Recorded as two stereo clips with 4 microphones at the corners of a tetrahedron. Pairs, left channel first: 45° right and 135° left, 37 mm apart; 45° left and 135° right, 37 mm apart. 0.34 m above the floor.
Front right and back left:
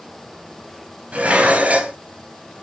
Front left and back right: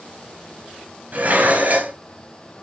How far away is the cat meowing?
No cat meowing in this recording.